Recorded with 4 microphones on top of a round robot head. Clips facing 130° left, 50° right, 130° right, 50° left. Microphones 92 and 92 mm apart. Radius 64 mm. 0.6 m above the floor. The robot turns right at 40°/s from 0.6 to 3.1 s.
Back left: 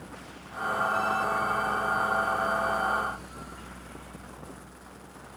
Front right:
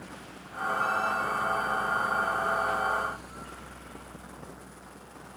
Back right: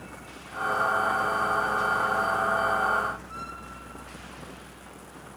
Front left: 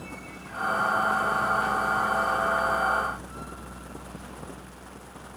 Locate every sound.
Only background noise.